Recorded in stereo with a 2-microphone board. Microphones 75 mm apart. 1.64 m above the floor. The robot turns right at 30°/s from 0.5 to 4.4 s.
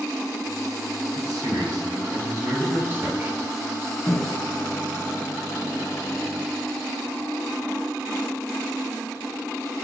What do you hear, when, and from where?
1.1 s a man speaking: 90° right, 4 m; by 3.4 s 20° right, 4 m
4.1 s a microwave: 35° left (ahead or behind), 0.5 m; by 6.5 s 40° left (ahead or behind), 0.5 m